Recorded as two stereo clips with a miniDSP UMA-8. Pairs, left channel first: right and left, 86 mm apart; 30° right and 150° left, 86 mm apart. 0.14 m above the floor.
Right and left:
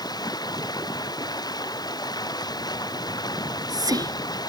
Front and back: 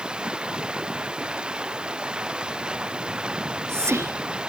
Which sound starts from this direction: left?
Whispering, at 3.4 s.